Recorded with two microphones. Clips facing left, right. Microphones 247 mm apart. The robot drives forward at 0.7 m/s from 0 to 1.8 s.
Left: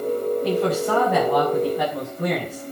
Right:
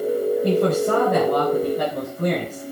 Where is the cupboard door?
No cupboard door in this recording.